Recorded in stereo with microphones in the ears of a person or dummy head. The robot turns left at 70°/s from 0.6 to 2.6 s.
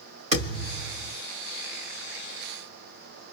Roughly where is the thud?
Behind right.